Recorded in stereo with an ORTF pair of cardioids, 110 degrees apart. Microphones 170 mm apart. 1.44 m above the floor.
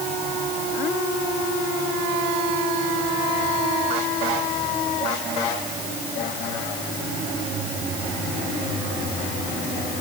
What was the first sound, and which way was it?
Only background noise.